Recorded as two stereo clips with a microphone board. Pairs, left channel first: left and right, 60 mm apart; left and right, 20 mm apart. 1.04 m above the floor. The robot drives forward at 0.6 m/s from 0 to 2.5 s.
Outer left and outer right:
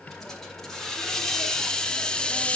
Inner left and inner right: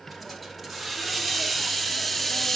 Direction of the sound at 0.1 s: 5° left (ahead or behind).